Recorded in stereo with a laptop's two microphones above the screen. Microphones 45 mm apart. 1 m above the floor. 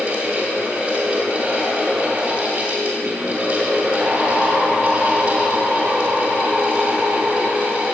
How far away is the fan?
About 4 m.